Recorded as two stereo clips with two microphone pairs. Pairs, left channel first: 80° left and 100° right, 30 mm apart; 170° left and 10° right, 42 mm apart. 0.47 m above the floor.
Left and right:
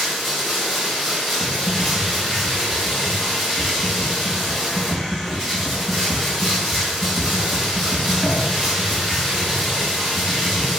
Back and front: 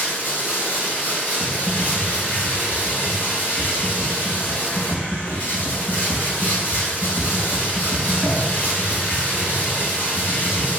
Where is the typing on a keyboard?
130° right, 2.5 m.